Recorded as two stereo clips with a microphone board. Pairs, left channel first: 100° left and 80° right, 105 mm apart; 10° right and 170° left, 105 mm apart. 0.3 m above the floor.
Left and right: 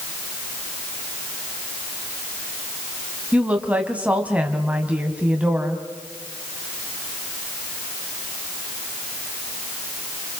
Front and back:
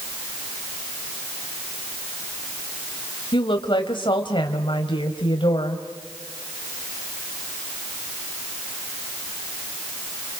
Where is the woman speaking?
5° right, 2 m.